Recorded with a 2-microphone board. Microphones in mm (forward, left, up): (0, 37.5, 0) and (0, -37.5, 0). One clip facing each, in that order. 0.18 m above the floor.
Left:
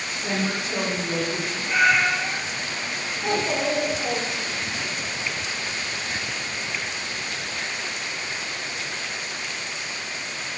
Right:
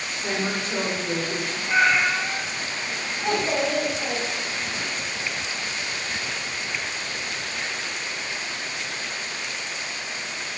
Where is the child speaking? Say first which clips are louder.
Even; centre (ahead or behind), 0.7 m.